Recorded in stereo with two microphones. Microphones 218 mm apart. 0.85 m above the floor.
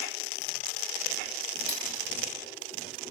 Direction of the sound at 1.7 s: 30° left (ahead or behind).